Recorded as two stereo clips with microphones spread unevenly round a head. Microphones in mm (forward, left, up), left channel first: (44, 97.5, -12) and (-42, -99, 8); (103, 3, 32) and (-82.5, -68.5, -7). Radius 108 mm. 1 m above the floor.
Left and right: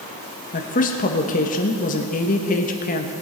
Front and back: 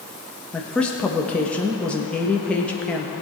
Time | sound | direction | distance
0.5 | a woman speaking | 110° left | 1.3 m